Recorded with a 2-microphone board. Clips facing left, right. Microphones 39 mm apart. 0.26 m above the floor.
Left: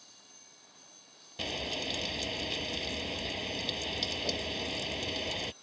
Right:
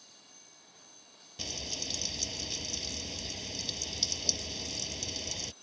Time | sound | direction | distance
1.4 | frying | 30° left (ahead or behind) | ?